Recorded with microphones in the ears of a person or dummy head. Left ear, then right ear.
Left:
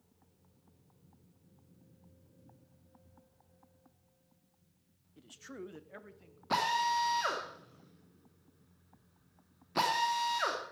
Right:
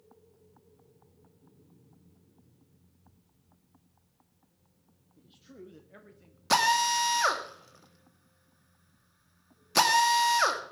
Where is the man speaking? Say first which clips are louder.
Left 4 dB; 75° left (ahead or behind), 1.0 m; by 6.4 s centre (ahead or behind), 1.3 m.